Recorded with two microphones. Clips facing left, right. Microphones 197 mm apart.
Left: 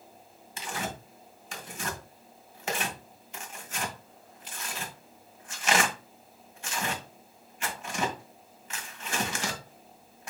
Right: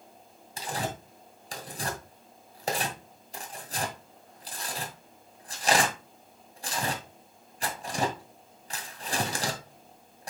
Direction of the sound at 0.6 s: 35° right (ahead or behind).